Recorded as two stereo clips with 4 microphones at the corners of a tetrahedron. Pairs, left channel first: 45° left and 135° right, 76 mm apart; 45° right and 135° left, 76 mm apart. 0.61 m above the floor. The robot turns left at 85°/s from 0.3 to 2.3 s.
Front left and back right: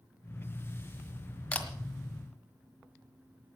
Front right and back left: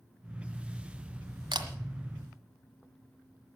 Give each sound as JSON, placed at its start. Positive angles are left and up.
{"t": 1.5, "sound": "a camera shutter", "azimuth_deg": 120, "distance_m": 1.6}